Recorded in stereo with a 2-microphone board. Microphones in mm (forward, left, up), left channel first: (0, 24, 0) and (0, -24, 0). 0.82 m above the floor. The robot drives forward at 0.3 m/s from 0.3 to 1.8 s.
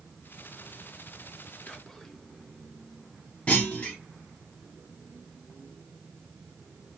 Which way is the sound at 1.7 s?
10° left (ahead or behind).